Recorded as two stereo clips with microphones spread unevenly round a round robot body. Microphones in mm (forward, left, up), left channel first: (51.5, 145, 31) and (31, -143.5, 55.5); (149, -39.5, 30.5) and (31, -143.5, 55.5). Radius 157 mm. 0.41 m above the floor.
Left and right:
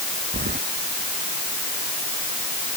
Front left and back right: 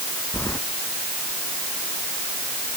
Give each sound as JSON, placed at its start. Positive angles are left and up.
{"t": 0.3, "sound": "keys jangling", "azimuth_deg": -35}